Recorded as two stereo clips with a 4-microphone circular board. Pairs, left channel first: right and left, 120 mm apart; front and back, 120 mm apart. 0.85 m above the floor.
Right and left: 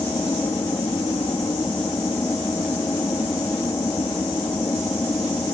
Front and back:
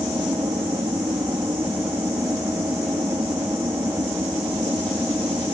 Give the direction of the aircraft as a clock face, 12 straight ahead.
5 o'clock.